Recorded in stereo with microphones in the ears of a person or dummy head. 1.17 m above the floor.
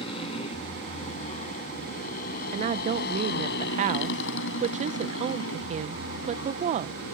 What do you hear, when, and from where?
0.0 s a motorcycle: 30° left (ahead or behind); by 7.2 s 75° left (ahead or behind)
2.5 s a woman speaking: 35° right (ahead or behind)